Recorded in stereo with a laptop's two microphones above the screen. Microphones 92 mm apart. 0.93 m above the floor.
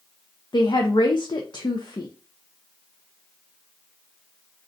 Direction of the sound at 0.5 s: 55° left (ahead or behind).